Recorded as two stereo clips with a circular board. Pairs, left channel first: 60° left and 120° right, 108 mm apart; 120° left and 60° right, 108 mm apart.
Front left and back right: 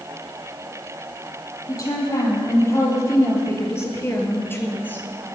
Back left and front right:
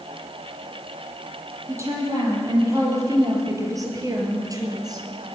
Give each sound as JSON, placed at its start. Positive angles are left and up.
{"t": 1.7, "sound": "a woman speaking", "azimuth_deg": 0, "distance_m": 5.0}